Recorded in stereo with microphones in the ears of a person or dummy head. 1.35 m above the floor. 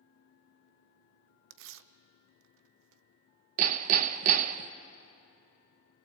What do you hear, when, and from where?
1.5 s tearing paper: 70° right (ahead or behind), 0.7 m
3.6 s hammering: 35° right (ahead or behind), 0.7 m